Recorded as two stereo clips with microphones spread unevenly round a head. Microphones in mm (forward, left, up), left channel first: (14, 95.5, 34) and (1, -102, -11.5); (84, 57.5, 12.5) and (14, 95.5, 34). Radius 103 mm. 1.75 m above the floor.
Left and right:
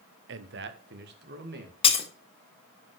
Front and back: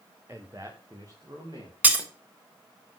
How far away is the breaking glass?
About 1.3 m.